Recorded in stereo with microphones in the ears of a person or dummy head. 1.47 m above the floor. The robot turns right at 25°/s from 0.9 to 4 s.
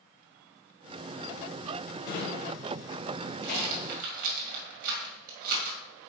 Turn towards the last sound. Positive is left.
turn(degrees=-45)  # may be behind; listen again after turning